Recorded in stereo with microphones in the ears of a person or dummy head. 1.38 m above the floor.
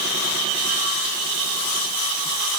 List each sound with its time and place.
Only background noise.